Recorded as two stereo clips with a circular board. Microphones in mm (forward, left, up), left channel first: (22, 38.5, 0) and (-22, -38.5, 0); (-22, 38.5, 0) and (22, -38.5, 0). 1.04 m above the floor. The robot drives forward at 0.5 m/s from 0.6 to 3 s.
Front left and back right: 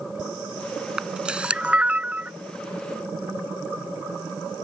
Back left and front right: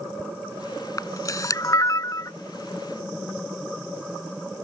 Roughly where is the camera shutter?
Behind.